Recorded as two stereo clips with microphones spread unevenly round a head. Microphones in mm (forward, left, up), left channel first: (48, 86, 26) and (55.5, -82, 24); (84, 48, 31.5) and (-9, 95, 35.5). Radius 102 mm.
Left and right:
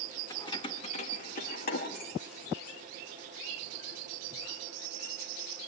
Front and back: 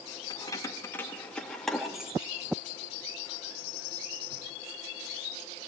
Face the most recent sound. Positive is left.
turn(degrees=90)